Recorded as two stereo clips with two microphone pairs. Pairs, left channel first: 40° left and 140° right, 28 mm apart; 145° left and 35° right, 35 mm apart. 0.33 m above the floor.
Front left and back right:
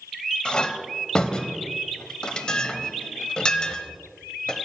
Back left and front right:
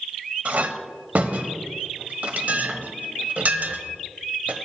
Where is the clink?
15° right, 0.8 m.